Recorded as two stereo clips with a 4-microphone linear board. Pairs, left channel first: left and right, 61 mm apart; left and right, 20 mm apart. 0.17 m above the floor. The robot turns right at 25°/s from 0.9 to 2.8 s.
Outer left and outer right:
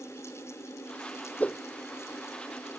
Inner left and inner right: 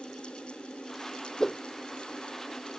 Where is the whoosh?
25° left (ahead or behind); by 1.6 s 20° left (ahead or behind).